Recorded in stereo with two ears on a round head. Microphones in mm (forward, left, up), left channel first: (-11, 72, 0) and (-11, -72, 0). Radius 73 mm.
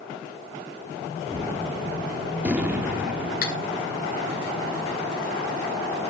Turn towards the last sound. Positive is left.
turn(degrees=65)  # may be behind; listen again after turning